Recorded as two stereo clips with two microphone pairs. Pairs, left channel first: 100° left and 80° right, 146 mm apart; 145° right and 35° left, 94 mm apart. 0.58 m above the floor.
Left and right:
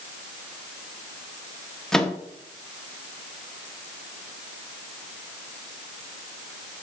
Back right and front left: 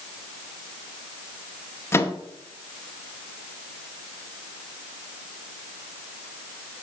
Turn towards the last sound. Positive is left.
turn(degrees=180)